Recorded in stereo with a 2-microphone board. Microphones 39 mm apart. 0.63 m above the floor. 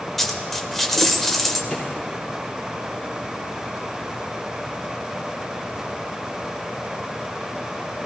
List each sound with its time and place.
0.2 s a dropped coin: 5° left (ahead or behind), 1.0 m
1.7 s a drawer: 15° left (ahead or behind), 5 m